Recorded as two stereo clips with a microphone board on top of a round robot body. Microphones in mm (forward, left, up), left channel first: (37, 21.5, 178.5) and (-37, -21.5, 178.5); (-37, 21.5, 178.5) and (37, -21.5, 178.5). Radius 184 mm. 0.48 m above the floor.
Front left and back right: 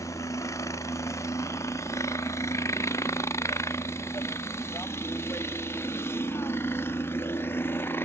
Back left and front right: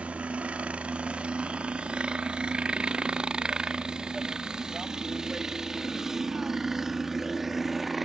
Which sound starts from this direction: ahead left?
A helicopter, at 0.0 s.